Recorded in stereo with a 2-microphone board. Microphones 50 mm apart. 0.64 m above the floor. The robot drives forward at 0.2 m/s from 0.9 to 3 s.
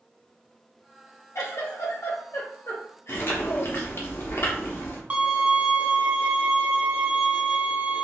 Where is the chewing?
50° left (ahead or behind), 0.9 m.